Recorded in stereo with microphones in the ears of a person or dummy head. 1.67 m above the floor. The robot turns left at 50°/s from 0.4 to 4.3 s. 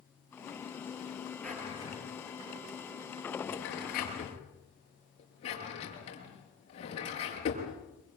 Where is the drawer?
5° left (ahead or behind), 7 m; by 7.7 s 35° left (ahead or behind), 7 m.